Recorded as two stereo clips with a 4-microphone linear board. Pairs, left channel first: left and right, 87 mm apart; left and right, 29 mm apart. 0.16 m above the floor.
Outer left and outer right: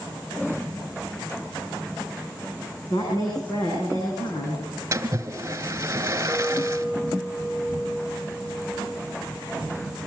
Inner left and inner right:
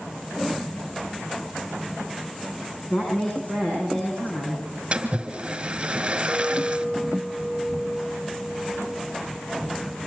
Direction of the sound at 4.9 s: 35° right (ahead or behind).